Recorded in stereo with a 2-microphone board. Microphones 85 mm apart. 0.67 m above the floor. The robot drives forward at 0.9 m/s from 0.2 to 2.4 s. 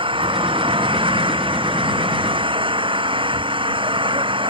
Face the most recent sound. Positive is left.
turn(degrees=-75)  # may be behind; listen again after turning